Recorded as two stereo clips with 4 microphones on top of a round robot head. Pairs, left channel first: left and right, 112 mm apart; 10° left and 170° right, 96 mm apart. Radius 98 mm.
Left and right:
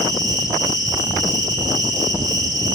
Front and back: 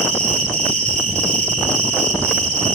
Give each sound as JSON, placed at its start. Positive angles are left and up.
{"t": 0.0, "sound": "an insect", "azimuth_deg": -155, "distance_m": 2.5}